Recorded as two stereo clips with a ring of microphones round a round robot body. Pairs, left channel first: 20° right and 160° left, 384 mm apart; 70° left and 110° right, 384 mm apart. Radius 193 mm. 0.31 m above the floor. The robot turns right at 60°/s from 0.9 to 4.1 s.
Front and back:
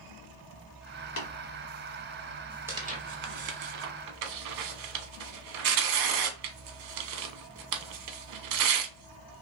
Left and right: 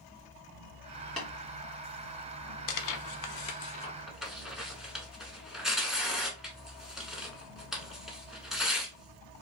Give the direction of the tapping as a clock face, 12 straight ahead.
1 o'clock.